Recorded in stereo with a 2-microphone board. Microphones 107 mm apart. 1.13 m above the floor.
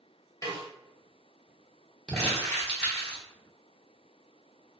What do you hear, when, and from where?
0.4 s a snare drum: 30° left (ahead or behind), 1.2 m
2.1 s crumpling: 10° left (ahead or behind), 1.1 m